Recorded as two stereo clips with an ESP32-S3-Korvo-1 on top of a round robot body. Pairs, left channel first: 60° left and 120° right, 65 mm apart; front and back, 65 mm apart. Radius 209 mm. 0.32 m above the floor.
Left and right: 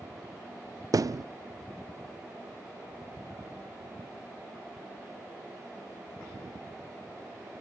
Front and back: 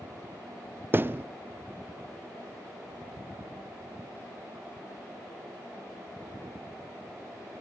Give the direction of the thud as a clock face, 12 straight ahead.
4 o'clock.